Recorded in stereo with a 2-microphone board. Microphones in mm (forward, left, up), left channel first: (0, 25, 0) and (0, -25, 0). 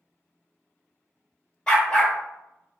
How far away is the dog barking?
About 1.3 m.